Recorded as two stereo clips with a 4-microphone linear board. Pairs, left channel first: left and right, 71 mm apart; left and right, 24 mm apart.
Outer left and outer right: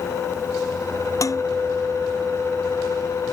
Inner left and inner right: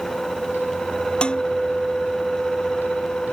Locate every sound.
1.2 s dishes clattering: 50° left (ahead or behind)